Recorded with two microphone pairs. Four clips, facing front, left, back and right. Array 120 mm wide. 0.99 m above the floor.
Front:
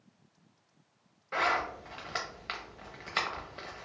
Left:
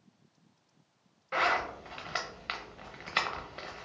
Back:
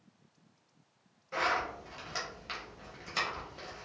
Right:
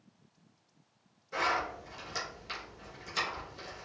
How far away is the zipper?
About 0.5 m.